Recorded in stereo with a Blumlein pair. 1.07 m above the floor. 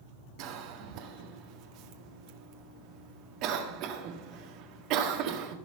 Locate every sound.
0.4 s a cough: 40° right, 1.7 m